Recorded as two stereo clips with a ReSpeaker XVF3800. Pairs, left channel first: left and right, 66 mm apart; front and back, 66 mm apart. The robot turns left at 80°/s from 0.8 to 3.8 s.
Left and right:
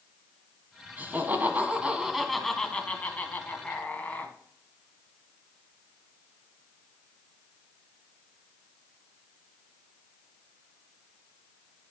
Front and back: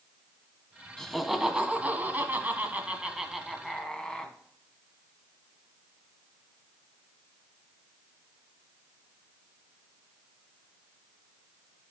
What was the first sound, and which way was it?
Laughter, 70° right.